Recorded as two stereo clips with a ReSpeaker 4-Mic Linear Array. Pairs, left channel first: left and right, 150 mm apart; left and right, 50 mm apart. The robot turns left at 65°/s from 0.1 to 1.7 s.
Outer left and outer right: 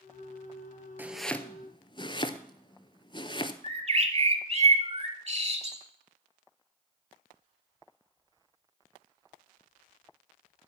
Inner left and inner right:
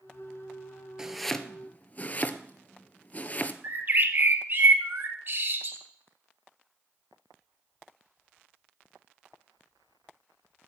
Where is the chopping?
15° right (ahead or behind), 0.5 m; by 3.5 s 30° left (ahead or behind), 0.5 m.